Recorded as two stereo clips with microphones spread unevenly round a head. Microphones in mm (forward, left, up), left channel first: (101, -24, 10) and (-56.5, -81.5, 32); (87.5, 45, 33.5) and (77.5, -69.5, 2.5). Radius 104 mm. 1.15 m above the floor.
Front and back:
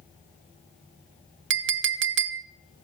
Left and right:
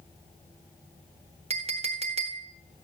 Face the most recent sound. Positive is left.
turn(degrees=-160)